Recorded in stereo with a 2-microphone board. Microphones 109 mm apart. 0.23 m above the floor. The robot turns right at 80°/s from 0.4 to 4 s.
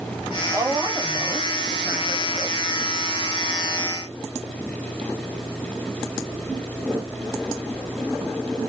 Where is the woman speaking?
20° right (ahead or behind), 1.2 m; by 2.6 s 20° left (ahead or behind), 1.2 m.